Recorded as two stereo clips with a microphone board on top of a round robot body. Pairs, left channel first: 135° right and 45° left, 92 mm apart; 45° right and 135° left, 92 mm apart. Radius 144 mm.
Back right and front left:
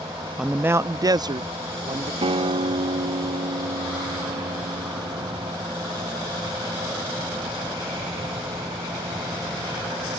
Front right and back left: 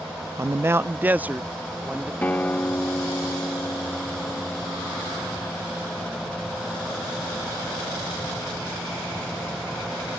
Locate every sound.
0.4 s a man speaking: 125° left; by 2.1 s 55° left
2.2 s a guitar: 30° left